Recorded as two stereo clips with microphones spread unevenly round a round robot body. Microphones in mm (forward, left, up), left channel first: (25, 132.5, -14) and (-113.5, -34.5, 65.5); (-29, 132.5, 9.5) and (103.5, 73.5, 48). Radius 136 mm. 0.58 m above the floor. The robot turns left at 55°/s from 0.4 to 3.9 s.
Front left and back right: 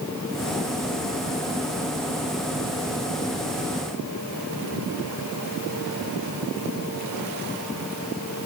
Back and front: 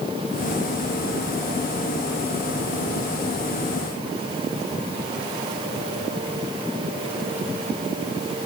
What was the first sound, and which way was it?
Only background noise.